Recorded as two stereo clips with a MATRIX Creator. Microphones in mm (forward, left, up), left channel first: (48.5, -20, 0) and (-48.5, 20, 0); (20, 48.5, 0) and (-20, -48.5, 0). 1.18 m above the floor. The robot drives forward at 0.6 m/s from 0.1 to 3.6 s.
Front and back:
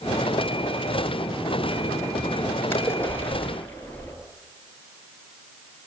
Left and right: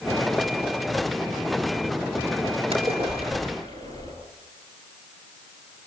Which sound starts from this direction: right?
A splash, at 2.7 s.